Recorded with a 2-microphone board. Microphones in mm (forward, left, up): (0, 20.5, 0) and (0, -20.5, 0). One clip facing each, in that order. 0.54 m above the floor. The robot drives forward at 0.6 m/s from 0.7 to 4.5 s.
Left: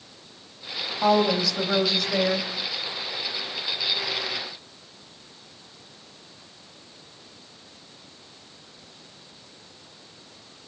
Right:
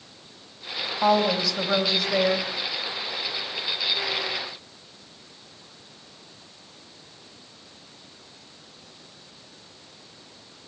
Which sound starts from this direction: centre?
A woman speaking, at 1.0 s.